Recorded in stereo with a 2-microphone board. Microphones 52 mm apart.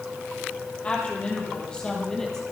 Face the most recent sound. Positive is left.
turn(degrees=10)  # may be behind; listen again after turning